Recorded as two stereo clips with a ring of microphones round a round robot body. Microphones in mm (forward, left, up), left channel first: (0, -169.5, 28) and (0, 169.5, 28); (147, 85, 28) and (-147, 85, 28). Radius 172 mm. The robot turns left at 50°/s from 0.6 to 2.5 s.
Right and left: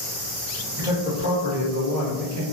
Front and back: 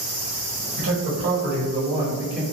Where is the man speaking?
170° left, 1.6 m; by 2.4 s 90° left, 1.6 m.